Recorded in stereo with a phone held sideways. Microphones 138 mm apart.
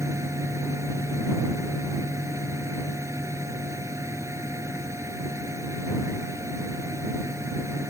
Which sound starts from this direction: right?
A fan, at 0.0 s.